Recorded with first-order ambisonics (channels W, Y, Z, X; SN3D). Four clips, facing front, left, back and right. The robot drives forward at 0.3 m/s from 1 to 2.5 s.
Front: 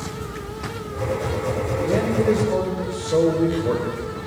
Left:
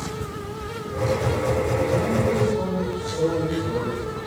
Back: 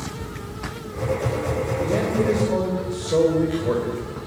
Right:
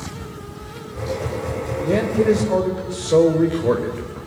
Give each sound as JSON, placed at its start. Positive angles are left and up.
{"t": 1.8, "sound": "a man speaking", "azimuth_deg": -85, "distance_m": 3.0}